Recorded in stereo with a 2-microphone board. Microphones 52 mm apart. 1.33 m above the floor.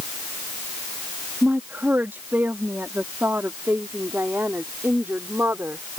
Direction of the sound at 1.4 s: 40° right (ahead or behind).